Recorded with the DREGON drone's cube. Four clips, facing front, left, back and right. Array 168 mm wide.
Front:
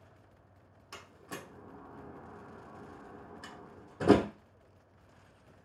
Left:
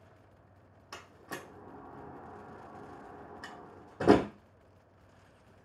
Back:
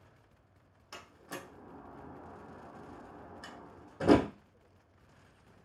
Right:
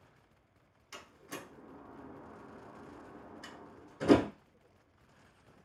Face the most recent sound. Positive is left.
turn(degrees=90)